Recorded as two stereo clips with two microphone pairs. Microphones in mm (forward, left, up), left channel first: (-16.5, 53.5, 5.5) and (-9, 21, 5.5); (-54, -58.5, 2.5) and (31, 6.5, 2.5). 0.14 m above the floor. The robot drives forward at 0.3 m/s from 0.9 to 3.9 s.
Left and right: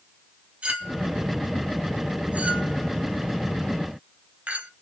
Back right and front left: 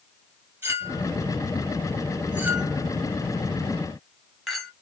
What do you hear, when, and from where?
0.6 s a clink: 30° right, 1.9 m; by 4.7 s 55° right, 1.3 m